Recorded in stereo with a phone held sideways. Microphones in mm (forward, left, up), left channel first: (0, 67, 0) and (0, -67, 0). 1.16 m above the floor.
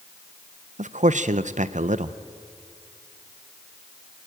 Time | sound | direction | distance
0.8 | a man speaking | 65° right (ahead or behind) | 0.7 m